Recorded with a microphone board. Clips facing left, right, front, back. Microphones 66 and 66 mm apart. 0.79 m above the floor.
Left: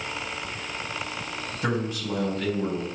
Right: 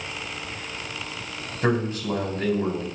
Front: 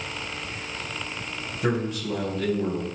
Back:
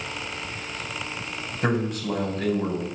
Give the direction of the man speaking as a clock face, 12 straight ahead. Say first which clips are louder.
Right 4 dB, back 1 dB; 5 o'clock.